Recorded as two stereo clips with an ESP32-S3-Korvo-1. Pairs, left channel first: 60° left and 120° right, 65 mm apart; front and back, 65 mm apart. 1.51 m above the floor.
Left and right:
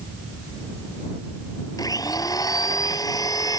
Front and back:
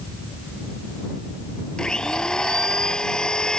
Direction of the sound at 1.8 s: 80° left.